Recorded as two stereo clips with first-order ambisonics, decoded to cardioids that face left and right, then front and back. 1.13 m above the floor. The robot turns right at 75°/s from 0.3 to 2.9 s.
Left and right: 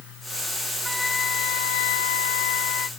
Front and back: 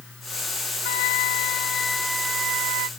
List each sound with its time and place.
0.8 s a flute: straight ahead; by 2.9 s 150° left